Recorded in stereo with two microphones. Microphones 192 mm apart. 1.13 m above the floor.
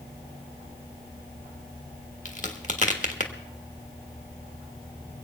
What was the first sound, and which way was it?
A crack, 40° left (ahead or behind).